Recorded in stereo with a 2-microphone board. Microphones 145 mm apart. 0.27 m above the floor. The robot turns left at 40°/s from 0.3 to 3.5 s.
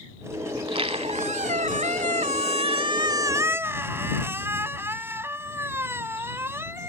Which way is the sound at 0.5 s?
40° right.